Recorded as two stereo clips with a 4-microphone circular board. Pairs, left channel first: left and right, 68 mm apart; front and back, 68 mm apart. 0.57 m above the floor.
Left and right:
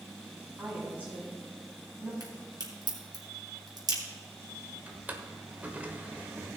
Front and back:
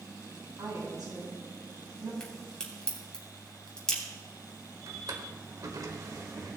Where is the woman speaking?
155° right, 4.5 m.